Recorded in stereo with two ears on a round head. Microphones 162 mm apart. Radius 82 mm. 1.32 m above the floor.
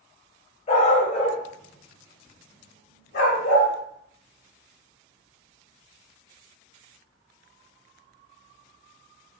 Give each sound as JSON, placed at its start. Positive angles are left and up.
{"t": 0.7, "sound": "a dog barking", "side_deg": 40, "distance_m": 1.7}